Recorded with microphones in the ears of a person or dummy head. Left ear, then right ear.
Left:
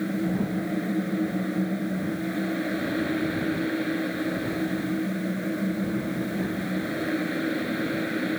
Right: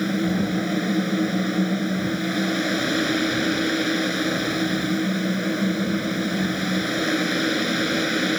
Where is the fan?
90° right.